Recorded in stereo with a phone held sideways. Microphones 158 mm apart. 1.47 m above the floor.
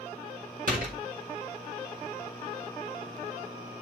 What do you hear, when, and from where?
0.7 s a door slam: 60° right (ahead or behind), 5 m